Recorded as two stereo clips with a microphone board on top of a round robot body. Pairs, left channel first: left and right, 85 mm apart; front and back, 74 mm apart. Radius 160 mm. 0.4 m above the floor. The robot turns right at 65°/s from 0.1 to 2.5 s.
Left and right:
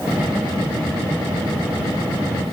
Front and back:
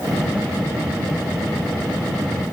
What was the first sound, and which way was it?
Only background noise.